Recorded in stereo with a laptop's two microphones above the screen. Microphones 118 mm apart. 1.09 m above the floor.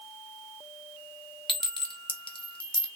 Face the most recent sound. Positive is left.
turn(degrees=50)  # may be behind; listen again after turning